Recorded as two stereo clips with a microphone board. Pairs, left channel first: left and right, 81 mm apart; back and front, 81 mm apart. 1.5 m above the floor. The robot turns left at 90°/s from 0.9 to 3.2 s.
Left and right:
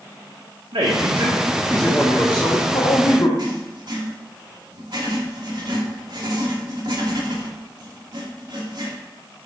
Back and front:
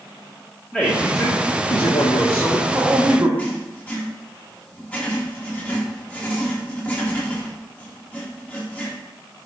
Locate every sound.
0.7 s a man speaking: 95° right, 1.5 m; by 3.3 s 60° left, 1.5 m
3.4 s writing: 110° right, 1.8 m